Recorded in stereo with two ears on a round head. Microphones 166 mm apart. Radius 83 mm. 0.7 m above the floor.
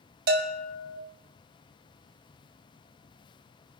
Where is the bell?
55° right (ahead or behind), 1.7 m.